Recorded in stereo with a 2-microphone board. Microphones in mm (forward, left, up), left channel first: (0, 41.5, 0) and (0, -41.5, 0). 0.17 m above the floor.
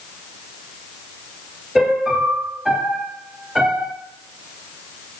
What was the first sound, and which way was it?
A piano, 5° right (ahead or behind).